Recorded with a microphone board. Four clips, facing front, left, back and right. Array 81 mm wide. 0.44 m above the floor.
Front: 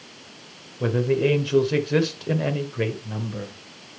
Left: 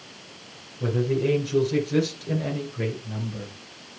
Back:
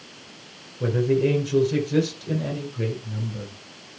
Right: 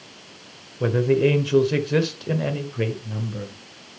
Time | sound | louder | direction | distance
0.8 | a man speaking | right 5 dB, even | 70° right | 1.7 m